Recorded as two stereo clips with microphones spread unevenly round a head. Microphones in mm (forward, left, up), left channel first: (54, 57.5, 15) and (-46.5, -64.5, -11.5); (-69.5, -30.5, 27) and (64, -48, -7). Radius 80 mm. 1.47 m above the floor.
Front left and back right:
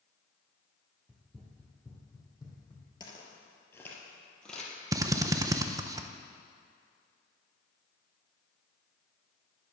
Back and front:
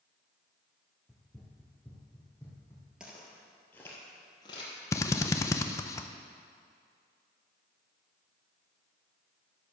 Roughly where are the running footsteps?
Behind left.